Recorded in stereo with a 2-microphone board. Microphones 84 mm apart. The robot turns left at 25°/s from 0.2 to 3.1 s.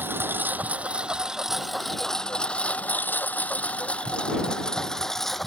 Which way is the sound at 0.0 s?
25° right (ahead or behind).